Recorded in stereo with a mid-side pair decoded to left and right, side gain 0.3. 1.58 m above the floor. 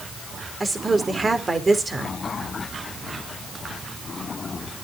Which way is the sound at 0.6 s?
40° right.